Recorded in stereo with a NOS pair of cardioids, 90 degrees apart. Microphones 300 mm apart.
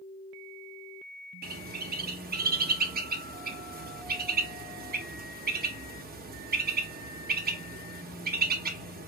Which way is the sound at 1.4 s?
30° right.